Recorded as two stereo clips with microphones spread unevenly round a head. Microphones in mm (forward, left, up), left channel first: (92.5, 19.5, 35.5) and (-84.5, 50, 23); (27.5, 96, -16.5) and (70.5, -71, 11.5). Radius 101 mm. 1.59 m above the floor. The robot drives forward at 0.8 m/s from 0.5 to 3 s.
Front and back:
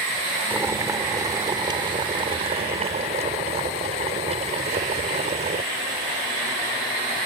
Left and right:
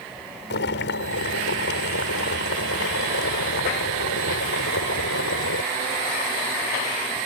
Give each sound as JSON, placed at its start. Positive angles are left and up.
{"t": 0.5, "sound": "boiling", "azimuth_deg": 90}